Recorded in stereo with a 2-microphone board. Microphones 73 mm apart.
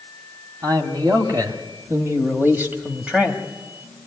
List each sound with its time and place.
0.6 s a man speaking: 55° right (ahead or behind), 2 m; by 3.4 s 10° right (ahead or behind), 1.5 m